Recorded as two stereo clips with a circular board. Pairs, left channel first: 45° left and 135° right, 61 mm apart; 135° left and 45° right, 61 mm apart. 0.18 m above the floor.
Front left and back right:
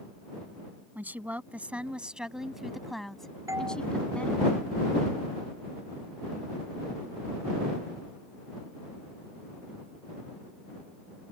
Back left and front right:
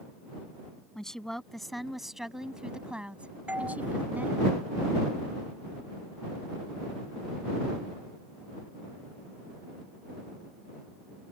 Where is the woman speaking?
150° right; by 4.5 s 5° right.